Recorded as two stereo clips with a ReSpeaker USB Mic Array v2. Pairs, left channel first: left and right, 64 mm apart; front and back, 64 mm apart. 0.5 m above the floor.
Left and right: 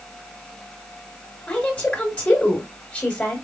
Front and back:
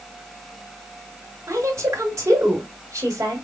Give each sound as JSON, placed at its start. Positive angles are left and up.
{"t": 1.5, "sound": "a woman speaking", "azimuth_deg": 155, "distance_m": 1.7}